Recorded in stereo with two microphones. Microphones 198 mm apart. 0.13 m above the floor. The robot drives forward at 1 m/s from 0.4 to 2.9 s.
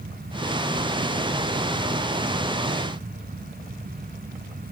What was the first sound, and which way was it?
Only background noise.